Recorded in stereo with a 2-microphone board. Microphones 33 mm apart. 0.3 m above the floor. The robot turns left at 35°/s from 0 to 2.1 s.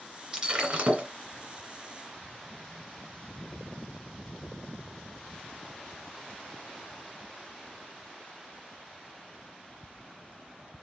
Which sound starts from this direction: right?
Breaking glass, at 0.3 s.